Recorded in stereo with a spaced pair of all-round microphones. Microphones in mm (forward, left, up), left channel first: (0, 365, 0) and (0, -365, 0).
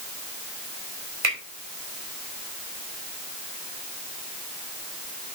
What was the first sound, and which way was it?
A finger snap, 45° right (ahead or behind).